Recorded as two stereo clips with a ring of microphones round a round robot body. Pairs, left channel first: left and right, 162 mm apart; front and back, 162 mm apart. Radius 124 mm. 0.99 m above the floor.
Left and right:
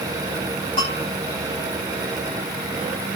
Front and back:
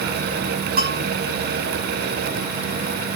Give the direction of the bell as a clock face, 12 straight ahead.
7 o'clock.